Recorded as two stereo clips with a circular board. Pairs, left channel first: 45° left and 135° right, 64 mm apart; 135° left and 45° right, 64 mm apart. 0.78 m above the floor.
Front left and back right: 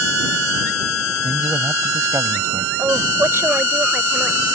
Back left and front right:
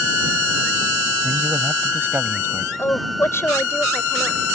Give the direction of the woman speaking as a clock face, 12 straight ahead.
6 o'clock.